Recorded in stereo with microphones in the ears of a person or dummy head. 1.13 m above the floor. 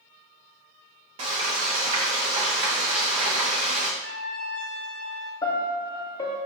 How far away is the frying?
About 0.7 m.